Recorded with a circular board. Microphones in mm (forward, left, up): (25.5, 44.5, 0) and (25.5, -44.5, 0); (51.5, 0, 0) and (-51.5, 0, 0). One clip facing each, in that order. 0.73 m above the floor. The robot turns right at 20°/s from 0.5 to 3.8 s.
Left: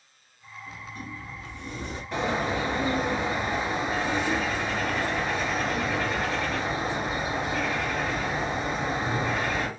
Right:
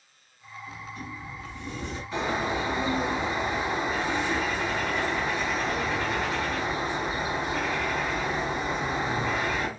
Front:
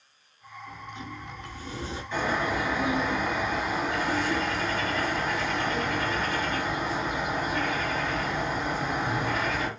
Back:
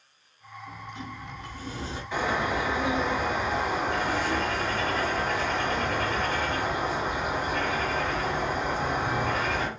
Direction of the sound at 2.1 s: 105° left.